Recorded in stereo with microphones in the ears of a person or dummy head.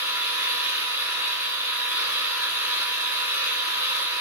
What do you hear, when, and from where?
0.0 s an engine running: 15° right (ahead or behind), 5 m